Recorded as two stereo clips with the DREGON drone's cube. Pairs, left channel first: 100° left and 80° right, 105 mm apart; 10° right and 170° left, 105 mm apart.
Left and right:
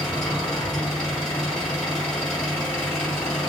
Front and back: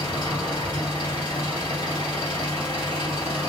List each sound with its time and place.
0.0 s an engine running: 20° left, 1.8 m